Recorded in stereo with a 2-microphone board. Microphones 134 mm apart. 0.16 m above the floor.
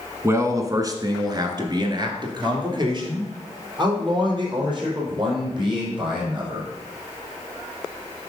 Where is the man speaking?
25° right (ahead or behind), 1.1 m; by 6.7 s 40° right (ahead or behind), 5 m.